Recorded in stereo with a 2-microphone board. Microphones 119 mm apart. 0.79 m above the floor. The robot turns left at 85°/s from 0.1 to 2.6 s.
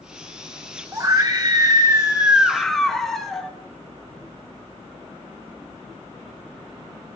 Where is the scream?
40° right, 0.7 m; by 3.5 s 175° left, 0.7 m.